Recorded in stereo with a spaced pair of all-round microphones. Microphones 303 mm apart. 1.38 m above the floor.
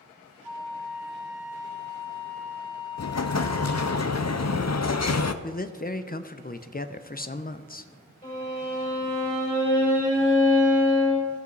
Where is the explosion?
60° left (ahead or behind), 0.5 m.